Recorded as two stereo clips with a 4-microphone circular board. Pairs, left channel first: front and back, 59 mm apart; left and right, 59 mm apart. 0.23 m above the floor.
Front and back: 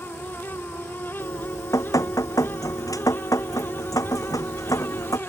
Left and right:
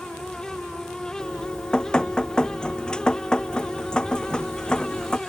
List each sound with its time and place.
1.2 s dripping: 15° left